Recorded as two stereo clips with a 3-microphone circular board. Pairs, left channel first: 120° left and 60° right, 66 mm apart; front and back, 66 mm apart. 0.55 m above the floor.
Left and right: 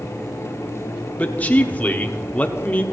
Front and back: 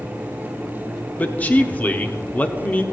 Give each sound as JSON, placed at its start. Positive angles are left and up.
{"t": 1.2, "sound": "a man speaking", "azimuth_deg": 60, "distance_m": 0.9}